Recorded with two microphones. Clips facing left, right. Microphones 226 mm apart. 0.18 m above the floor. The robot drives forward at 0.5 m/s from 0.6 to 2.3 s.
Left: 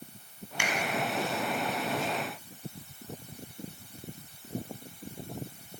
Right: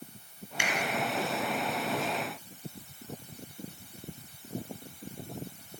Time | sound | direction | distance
0.6 | a finger snap | 25° right (ahead or behind) | 0.8 m